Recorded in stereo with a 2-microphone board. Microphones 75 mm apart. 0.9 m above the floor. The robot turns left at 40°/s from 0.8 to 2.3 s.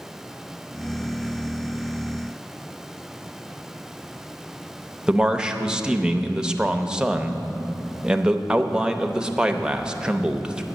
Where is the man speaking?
10° right (ahead or behind), 0.7 m.